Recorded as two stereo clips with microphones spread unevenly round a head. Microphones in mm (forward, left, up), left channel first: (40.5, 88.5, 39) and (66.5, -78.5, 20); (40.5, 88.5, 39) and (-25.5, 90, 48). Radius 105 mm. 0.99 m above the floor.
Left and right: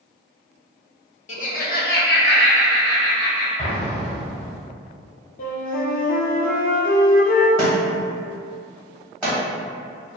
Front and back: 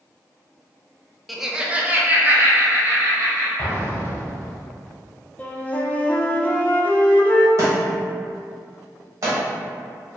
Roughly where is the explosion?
Ahead left.